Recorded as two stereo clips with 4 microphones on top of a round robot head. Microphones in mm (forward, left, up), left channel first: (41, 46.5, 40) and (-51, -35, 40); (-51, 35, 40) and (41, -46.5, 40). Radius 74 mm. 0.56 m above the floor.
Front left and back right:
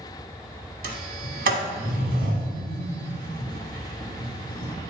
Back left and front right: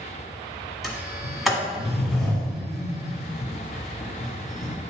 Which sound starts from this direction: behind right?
A sliding door, at 0.8 s.